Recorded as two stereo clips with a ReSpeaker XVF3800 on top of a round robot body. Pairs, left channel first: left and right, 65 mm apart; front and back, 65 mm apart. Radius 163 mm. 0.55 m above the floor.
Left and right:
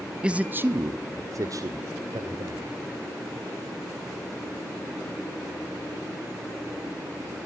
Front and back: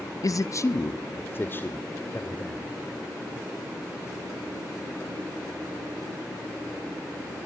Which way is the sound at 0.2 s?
15° right.